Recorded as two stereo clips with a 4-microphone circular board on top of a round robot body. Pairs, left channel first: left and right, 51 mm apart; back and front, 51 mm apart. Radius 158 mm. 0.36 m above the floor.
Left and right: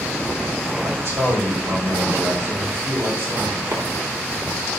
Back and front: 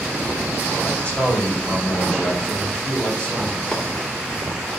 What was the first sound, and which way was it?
A man speaking, 115° right.